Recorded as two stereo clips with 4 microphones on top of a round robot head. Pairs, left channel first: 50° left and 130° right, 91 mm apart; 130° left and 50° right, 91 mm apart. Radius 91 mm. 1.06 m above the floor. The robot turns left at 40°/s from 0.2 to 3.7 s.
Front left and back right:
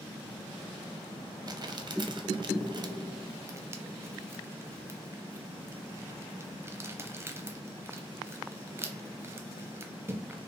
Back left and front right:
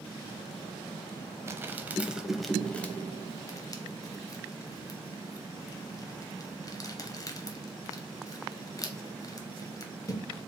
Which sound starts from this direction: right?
Crumpling, at 1.5 s.